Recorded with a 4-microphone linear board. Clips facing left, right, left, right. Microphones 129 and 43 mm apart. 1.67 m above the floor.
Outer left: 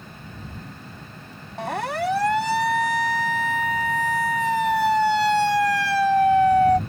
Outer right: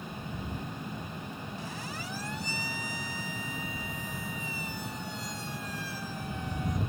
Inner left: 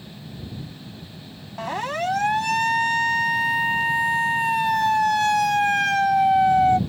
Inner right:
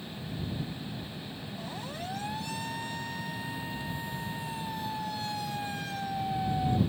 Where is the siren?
70° left (ahead or behind); by 6.8 s 80° left.